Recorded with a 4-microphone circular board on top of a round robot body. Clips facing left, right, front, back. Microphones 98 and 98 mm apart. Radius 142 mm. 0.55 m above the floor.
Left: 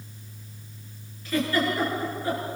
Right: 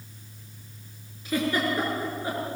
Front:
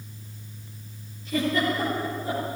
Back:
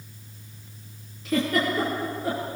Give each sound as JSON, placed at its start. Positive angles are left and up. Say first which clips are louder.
{"t": 1.2, "sound": "a giggle", "louder": "left 1 dB, back 1 dB", "azimuth_deg": -165, "distance_m": 8.0}